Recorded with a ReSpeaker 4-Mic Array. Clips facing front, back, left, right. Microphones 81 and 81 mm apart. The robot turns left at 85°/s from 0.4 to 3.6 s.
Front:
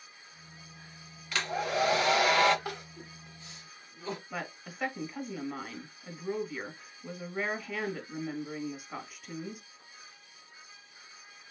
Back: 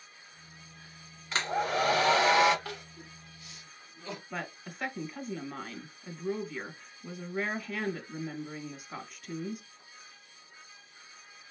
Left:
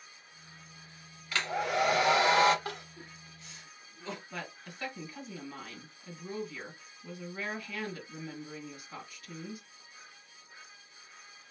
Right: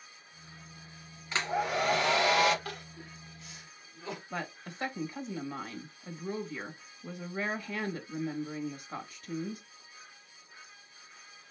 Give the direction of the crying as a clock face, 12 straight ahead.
10 o'clock.